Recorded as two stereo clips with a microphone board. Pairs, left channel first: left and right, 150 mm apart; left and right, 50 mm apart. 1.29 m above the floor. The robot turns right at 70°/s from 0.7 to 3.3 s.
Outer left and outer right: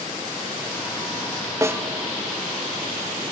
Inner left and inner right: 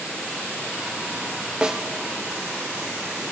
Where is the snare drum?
20° right (ahead or behind), 0.5 m; by 1.8 s 10° right (ahead or behind), 0.5 m.